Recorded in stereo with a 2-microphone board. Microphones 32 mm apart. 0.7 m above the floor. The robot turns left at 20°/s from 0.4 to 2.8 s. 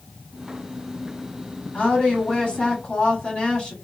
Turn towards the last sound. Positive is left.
turn(degrees=25)  # may be behind; listen again after turning